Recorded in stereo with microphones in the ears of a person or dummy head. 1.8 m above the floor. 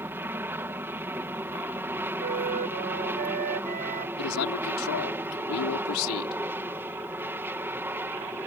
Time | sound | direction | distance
0.0 | an aircraft | 10° right (ahead or behind) | ?
2.2 | a flute | 45° right (ahead or behind) | ?
4.2 | a man speaking | 75° left (ahead or behind) | ?